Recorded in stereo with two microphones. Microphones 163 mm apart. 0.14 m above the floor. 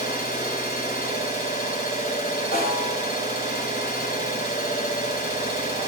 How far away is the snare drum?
About 7 m.